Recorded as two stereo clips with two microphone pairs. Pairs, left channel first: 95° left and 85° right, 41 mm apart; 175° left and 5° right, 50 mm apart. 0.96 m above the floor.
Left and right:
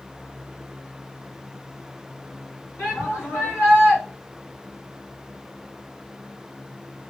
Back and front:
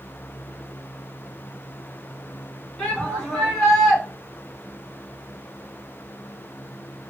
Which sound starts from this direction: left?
A shout, at 2.8 s.